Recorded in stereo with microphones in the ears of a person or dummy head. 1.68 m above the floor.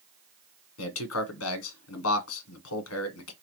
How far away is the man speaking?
About 1.0 m.